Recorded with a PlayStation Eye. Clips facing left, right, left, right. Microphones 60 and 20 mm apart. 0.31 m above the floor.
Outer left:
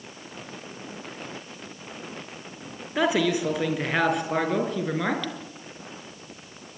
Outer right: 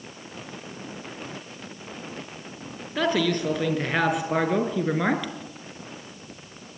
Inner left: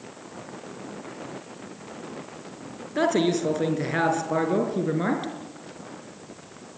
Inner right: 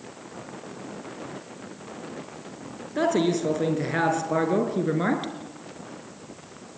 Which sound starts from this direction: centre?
A man speaking, at 3.0 s.